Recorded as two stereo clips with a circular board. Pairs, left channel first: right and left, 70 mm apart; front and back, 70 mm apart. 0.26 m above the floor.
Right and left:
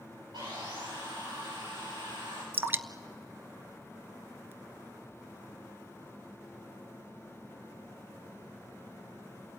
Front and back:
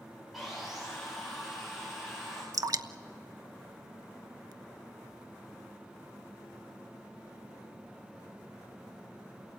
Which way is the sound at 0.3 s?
90° left.